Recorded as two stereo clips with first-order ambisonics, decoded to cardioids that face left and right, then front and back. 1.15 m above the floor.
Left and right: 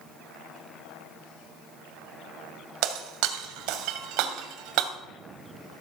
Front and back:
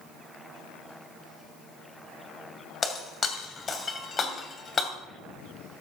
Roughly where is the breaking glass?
Right.